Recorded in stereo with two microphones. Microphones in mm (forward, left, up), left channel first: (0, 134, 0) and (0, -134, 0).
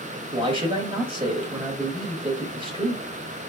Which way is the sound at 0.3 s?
20° right (ahead or behind).